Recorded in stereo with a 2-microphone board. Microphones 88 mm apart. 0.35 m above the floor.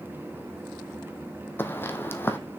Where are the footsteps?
25° left (ahead or behind), 0.9 m.